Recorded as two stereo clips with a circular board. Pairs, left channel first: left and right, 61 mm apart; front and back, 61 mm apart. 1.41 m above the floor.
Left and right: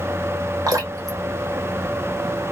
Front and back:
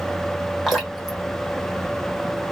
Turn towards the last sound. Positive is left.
turn(degrees=-85)